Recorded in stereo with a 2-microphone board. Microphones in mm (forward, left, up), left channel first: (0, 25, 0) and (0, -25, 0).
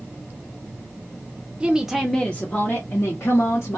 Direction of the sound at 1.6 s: 20° right (ahead or behind).